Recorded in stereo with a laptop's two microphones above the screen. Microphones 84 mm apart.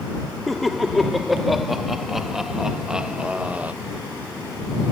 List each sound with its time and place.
0.5 s laughter: centre (ahead or behind); by 3.7 s 20° right (ahead or behind)